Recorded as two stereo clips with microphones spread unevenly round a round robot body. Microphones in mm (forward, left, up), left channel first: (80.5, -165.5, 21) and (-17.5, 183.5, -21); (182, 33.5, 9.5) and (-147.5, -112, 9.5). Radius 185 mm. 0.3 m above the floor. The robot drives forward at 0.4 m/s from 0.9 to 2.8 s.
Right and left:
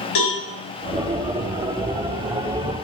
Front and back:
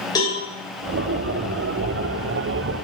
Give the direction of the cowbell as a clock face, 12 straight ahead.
2 o'clock.